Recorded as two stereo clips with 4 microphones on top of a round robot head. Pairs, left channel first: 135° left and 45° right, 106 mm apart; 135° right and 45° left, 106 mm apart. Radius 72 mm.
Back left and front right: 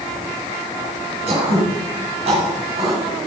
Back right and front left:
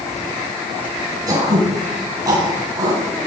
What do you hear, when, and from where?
1.3 s throat clearing: 15° right, 10 m